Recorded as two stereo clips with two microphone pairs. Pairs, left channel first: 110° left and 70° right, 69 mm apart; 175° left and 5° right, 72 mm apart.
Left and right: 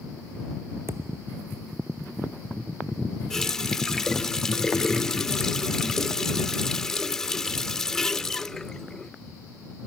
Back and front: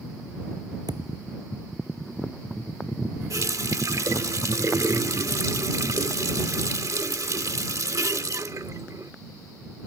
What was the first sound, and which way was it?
A thud, 20° right.